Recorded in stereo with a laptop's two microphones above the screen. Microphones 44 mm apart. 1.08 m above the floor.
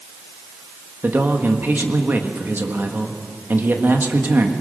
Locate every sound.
1.0 s a man speaking: 50° right (ahead or behind), 1.5 m